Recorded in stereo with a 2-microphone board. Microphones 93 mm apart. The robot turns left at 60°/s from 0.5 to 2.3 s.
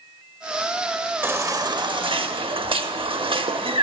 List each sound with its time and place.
1.2 s a baby crying: 25° right, 0.6 m; by 3.8 s 90° right, 0.6 m